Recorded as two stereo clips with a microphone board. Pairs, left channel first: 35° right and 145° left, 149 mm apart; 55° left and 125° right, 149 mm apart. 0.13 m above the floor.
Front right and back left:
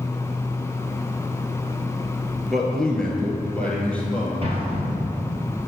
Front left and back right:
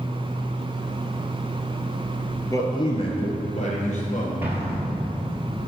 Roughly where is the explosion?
Behind.